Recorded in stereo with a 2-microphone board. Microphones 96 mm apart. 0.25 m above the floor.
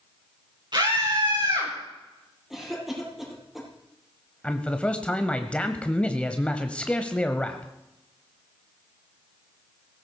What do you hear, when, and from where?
0.7 s a scream: 50° right (ahead or behind), 7 m; by 1.7 s 45° right (ahead or behind), 7 m
2.5 s a cough: 5° right (ahead or behind), 7.5 m
4.4 s a man speaking: 10° left (ahead or behind), 0.9 m